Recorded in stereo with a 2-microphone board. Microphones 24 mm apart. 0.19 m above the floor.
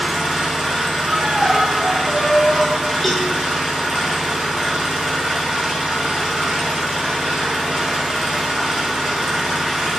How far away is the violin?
About 1.2 m.